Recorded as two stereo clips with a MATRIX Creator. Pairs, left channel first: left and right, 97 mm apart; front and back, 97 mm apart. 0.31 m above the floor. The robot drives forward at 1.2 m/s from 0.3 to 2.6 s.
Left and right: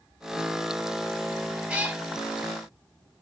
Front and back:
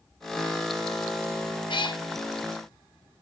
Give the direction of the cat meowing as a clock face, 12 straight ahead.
12 o'clock.